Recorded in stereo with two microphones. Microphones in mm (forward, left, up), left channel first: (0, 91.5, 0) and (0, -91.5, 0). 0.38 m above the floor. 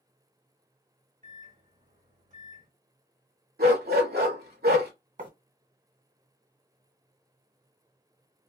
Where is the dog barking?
60° right (ahead or behind), 0.7 m.